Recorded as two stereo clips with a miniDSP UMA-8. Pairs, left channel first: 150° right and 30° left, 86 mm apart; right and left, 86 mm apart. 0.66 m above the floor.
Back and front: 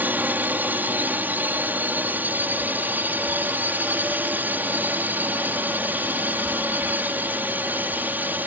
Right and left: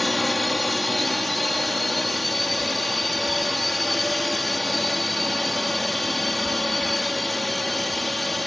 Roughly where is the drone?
Ahead.